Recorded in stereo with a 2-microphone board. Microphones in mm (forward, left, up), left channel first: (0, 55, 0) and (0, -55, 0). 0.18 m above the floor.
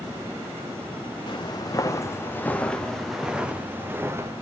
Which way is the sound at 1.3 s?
45° left (ahead or behind).